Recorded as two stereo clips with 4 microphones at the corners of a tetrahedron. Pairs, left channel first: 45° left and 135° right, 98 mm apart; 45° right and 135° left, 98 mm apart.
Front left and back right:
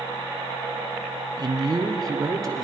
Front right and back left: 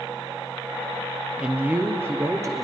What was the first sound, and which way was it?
A man speaking, 150° right.